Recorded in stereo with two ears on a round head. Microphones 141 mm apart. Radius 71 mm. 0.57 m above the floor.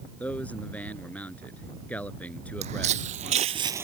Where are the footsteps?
45° right (ahead or behind); by 3.9 s 15° right (ahead or behind).